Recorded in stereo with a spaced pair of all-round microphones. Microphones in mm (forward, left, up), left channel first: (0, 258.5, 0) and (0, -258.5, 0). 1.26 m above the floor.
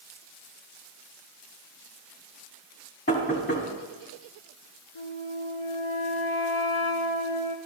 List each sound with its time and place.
3.1 s knocking: 25° left (ahead or behind), 2 m
5.0 s a flute: 70° left (ahead or behind), 0.8 m